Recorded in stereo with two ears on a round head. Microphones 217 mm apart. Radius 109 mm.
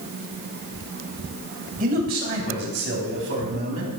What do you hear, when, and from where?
1.8 s a man speaking: 35° right (ahead or behind), 3 m; by 3.9 s 60° right (ahead or behind), 4 m